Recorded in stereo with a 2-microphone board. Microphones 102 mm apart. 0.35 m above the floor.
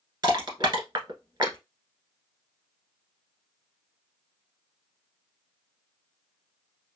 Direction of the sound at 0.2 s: 45° right (ahead or behind).